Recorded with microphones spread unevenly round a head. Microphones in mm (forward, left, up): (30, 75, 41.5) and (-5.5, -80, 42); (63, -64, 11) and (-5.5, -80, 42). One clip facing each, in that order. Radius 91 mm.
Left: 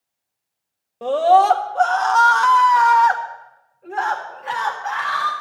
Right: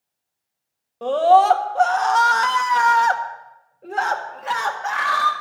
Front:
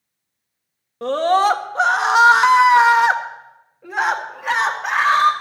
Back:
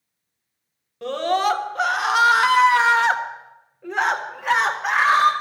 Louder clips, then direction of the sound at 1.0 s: Even, front 5 dB; 5° right.